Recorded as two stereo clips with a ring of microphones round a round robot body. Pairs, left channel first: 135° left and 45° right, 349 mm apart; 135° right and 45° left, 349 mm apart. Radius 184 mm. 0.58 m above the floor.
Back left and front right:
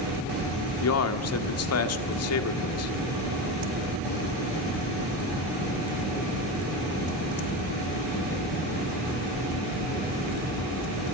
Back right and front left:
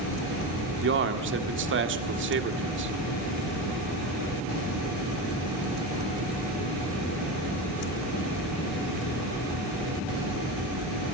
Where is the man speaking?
95° left, 1.6 m.